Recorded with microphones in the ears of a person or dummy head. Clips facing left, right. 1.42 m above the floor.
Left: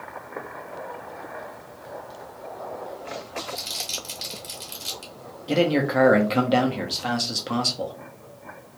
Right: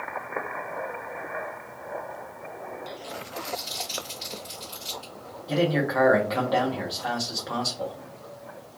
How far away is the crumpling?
About 1.0 m.